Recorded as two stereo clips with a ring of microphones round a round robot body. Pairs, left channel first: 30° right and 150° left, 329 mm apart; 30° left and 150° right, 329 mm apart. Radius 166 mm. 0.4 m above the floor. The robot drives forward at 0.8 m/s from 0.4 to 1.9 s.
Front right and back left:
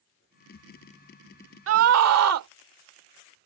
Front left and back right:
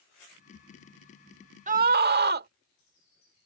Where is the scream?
155° left; by 2.5 s 160° left.